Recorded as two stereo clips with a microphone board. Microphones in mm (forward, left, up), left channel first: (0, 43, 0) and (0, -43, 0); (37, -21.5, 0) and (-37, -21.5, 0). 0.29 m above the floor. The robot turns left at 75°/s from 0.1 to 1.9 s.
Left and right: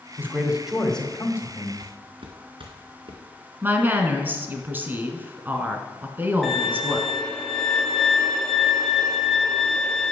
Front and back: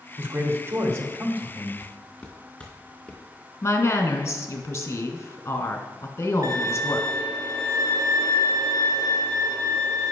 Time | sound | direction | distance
0.2 | a man speaking | 135° right | 1.7 m
1.8 | footsteps | 75° right | 2 m
3.6 | a woman speaking | 40° right | 1.4 m
6.4 | a violin | straight behind | 2 m